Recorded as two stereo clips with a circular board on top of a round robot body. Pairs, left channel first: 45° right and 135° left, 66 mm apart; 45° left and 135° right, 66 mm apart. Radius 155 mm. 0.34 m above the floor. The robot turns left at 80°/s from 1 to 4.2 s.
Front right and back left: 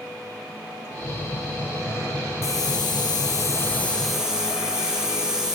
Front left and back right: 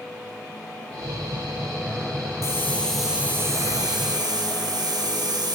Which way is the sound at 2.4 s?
Straight ahead.